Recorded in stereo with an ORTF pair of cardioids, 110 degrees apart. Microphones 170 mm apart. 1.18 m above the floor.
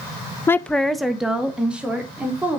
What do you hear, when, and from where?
0.5 s a woman speaking: 15° left, 0.5 m; by 2.6 s 10° right, 3 m